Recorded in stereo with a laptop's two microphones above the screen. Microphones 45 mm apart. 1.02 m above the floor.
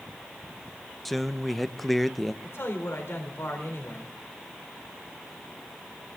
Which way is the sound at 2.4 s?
75° left (ahead or behind).